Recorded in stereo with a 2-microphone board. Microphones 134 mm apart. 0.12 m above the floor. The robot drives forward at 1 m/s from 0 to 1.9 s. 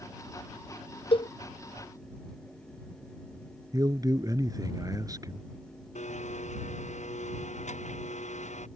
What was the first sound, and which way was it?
A cowbell, 45° left (ahead or behind).